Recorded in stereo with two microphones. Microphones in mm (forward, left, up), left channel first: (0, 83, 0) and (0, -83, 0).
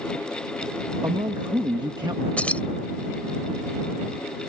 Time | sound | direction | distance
1.0 | a man speaking | 25° right (ahead or behind) | ?
2.4 | keys jangling | 10° left (ahead or behind) | ?